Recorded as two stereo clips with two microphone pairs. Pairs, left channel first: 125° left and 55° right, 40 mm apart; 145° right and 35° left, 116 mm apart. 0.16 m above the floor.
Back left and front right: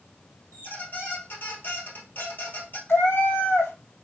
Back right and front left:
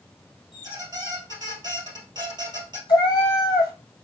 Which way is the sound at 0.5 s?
90° left.